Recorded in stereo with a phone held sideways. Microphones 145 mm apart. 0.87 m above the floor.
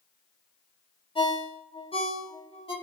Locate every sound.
1.1 s a ringtone: 40° left (ahead or behind), 1.2 m